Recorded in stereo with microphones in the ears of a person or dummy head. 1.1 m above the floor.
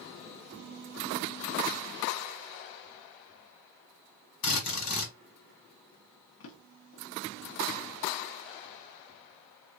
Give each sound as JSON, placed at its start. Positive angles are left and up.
{"t": 4.4, "sound": "a drill", "side_deg": 60, "distance_m": 1.6}
{"t": 6.4, "sound": "a drawer", "side_deg": 70, "distance_m": 0.8}